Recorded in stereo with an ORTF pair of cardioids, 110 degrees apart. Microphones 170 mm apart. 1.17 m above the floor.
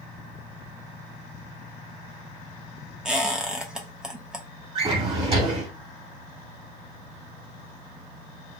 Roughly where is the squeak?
Ahead.